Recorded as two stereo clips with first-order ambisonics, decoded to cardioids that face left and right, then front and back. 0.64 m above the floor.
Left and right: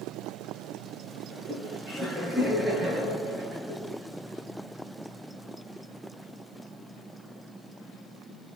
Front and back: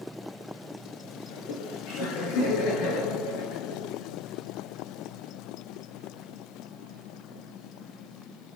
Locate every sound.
1.3 s laughter: 10° right, 9.5 m